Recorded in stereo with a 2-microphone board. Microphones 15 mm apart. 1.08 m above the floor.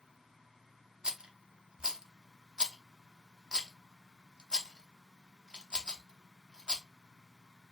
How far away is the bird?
I don't hear a bird.